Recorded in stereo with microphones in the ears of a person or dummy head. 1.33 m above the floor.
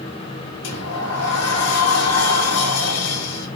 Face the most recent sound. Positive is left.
turn(degrees=80)